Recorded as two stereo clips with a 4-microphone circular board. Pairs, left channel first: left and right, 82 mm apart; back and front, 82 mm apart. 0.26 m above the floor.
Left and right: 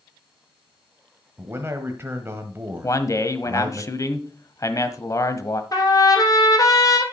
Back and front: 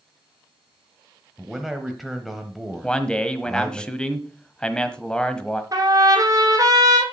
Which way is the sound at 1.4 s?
90° right.